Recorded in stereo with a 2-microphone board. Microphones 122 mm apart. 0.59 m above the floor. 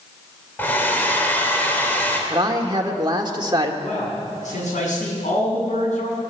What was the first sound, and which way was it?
A hair dryer, 15° left (ahead or behind).